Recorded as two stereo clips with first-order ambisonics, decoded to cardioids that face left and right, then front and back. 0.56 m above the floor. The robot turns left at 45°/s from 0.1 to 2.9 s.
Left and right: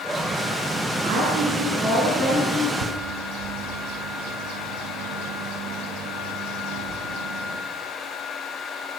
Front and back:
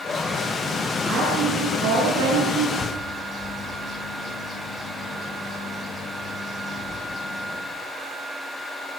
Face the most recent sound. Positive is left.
turn(degrees=-75)